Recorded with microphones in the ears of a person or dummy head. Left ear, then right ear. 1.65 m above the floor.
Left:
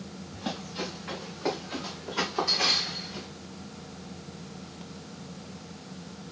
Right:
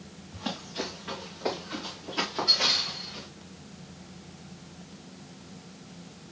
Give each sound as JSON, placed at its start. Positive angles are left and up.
{"t": 0.3, "sound": "running footsteps", "side_deg": -5, "distance_m": 5.0}